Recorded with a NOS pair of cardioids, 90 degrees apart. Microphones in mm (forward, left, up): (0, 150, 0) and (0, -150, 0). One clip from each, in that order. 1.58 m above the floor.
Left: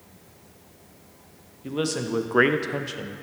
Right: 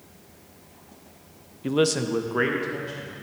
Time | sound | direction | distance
1.6 | a man speaking | 30° right | 0.6 m